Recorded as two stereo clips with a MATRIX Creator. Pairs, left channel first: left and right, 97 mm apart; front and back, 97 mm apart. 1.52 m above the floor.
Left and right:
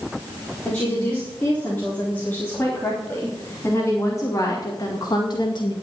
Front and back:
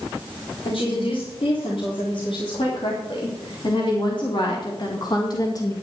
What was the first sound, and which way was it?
A woman speaking, 15° left.